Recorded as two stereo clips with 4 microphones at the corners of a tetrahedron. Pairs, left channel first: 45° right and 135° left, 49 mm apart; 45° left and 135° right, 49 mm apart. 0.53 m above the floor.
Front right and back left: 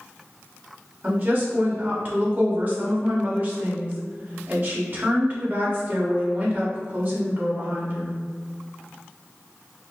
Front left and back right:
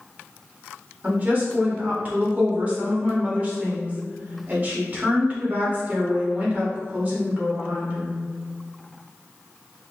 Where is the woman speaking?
175° left, 1.7 m.